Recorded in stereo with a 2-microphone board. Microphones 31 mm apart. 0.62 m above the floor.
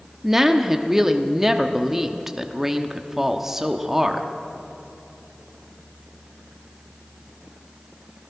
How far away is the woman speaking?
About 0.9 m.